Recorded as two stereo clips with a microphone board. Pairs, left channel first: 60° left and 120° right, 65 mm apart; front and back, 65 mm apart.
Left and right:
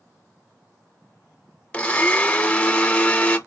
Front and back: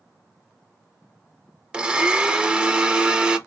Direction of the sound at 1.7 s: 120° left.